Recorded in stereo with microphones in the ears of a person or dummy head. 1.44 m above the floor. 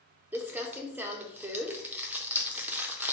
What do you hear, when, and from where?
0.3 s crumpling: 5° right (ahead or behind), 0.5 m